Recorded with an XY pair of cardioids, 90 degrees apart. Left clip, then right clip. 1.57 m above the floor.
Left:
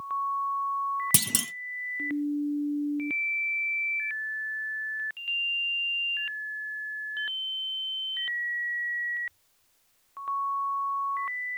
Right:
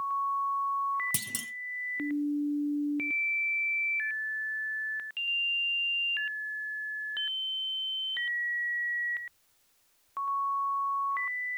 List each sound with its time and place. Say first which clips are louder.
1.1 s a clunk: left 7 dB; 65° left, 0.6 m